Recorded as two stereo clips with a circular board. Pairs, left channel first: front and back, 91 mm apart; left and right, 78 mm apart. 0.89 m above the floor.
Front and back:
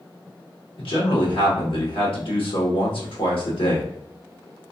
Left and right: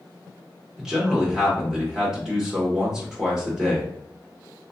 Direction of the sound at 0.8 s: 10° right.